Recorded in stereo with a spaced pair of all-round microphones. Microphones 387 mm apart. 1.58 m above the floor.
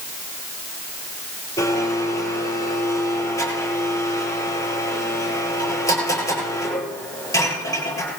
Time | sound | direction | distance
1.6 | a blender | 10° left (ahead or behind) | 10 m